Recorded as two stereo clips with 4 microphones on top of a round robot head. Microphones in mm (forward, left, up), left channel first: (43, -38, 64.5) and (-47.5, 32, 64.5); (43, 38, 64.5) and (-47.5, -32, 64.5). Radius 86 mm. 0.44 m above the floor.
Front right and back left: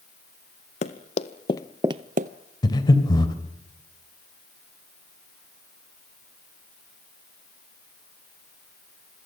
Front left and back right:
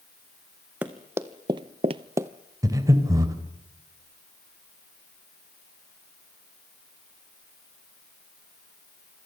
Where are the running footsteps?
65° right, 1.6 m; by 2.3 s 145° left, 0.9 m.